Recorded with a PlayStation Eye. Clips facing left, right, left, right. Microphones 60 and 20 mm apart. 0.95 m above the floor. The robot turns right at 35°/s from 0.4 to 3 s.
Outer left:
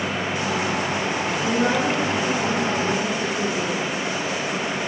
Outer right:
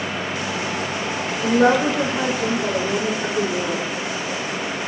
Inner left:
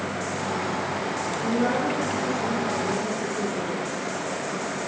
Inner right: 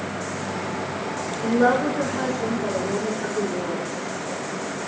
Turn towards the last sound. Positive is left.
turn(degrees=-80)